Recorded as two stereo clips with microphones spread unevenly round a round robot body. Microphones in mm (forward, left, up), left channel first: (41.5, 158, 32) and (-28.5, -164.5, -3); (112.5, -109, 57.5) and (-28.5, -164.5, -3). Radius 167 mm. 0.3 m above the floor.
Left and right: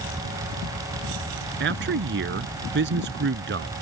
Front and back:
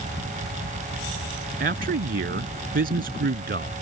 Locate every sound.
1.6 s a man speaking: 160° right